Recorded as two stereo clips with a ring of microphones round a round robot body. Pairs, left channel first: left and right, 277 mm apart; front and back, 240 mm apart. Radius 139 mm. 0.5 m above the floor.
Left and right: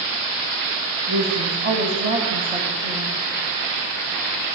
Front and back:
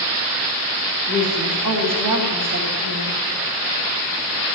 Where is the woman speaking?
145° right, 4.5 m; by 3.1 s 175° right, 3 m.